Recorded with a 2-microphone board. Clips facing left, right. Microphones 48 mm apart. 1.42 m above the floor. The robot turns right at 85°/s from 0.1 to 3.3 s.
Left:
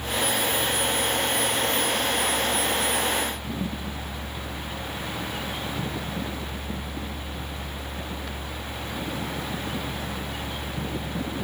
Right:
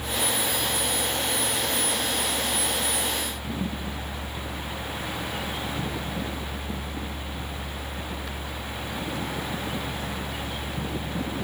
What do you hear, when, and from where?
Only background noise.